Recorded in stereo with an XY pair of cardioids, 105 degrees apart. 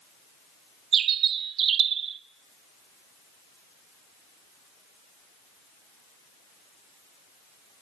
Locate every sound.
0.9 s a bird: 70° right, 1.4 m